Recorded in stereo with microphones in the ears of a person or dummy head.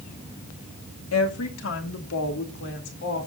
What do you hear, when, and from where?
1.1 s a woman speaking: 85° left, 2 m; by 3.3 s 65° left (ahead or behind), 4 m